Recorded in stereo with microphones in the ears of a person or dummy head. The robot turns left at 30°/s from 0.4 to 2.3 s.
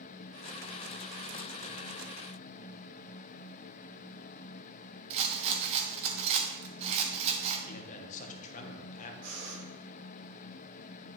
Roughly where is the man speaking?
Left.